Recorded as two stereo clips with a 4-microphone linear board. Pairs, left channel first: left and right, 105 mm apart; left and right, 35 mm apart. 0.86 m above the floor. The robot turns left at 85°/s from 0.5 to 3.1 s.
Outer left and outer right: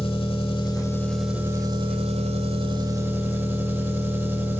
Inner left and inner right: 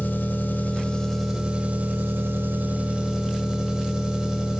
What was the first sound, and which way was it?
An engine running, 65° left.